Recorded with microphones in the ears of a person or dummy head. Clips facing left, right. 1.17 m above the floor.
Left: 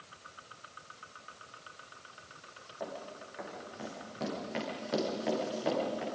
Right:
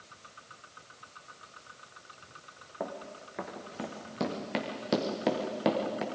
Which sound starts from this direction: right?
Running footsteps, at 2.8 s.